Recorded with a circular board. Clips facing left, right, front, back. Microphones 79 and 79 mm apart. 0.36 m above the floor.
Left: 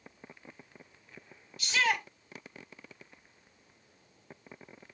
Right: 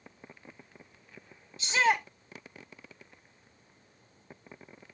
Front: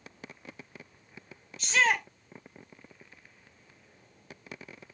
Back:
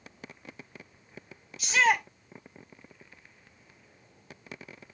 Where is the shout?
105° right, 1.6 m.